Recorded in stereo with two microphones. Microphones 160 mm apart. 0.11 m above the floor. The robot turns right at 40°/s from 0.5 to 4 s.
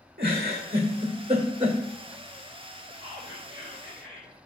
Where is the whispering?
45° right, 1.7 m; by 4.3 s 5° right, 1.7 m.